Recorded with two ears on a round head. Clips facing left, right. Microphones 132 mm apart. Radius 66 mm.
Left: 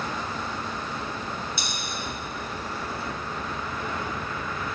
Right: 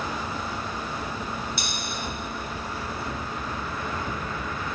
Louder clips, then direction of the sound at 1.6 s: Right 1 dB; 75° left (ahead or behind).